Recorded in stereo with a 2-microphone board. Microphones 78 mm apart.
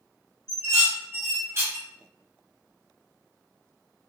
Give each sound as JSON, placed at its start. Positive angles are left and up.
{"t": 0.5, "sound": "dishes clattering", "side_deg": -35, "distance_m": 0.7}